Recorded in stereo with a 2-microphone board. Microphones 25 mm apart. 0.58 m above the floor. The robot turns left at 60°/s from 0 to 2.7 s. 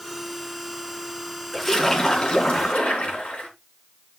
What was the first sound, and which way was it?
A splash, straight behind.